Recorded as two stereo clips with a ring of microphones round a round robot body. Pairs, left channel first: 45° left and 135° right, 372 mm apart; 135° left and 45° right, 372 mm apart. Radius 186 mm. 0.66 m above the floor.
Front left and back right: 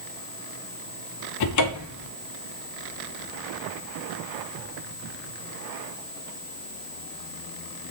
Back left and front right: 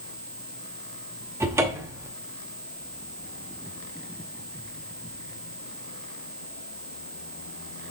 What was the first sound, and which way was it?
A cupboard door, 35° left.